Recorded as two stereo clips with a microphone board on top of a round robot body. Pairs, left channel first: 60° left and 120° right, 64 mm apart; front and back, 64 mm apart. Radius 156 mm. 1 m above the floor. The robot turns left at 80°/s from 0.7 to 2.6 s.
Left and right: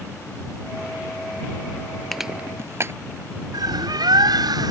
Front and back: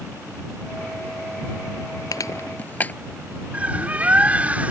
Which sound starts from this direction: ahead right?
Crushing, at 2.1 s.